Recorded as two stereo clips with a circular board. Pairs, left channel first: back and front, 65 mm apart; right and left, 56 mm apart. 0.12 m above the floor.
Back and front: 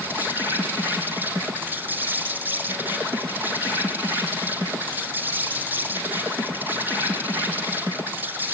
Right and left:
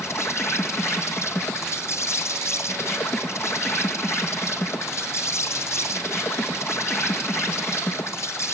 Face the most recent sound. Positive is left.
turn(degrees=-60)